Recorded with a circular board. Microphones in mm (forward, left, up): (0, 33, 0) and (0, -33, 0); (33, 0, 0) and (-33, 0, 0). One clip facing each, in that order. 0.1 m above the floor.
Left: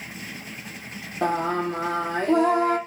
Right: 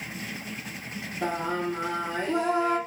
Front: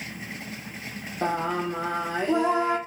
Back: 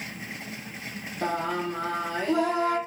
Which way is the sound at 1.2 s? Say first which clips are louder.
Left 5 dB, front 2 dB; 65° left.